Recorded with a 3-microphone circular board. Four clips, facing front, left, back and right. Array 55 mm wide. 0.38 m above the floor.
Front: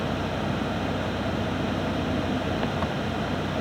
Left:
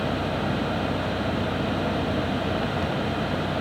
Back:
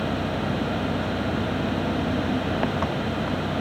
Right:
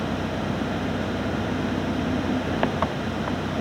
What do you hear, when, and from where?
0.0 s an engine running: 105° right